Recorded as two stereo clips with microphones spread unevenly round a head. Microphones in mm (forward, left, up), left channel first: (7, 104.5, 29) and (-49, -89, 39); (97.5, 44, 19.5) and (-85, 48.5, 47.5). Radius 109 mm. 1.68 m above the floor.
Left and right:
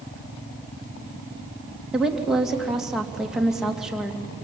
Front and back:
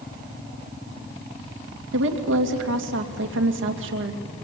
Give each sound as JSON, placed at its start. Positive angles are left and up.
{"t": 1.9, "sound": "a woman speaking", "azimuth_deg": 165, "distance_m": 2.5}